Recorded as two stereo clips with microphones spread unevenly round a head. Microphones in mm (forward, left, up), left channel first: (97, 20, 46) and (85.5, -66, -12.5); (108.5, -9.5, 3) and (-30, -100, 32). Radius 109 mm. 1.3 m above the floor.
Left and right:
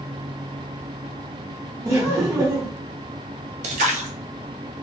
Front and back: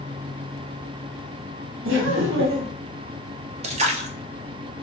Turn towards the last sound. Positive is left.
turn(degrees=-105)